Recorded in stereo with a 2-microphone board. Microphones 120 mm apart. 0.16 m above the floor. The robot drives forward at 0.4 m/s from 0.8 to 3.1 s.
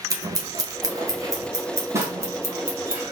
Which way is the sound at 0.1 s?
30° right (ahead or behind).